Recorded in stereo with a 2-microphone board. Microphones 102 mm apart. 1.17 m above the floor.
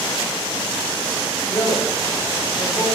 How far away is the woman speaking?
About 6 m.